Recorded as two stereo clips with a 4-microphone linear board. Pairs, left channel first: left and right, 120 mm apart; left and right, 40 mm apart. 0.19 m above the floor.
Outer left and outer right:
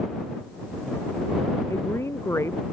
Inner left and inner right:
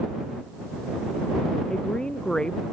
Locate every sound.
1.7 s a woman speaking: 25° left (ahead or behind)